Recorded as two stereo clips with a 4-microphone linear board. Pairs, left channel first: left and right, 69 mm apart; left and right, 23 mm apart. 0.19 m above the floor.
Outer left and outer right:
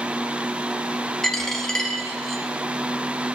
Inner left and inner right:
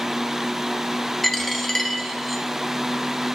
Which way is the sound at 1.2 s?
10° left (ahead or behind).